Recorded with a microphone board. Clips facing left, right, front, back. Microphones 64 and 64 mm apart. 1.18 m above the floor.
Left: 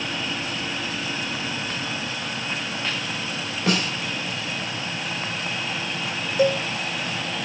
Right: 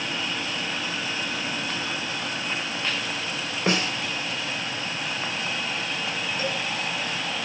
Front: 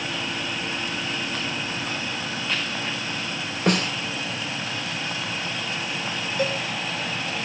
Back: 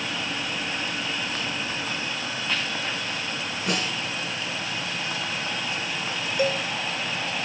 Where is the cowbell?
100° left, 1.7 m.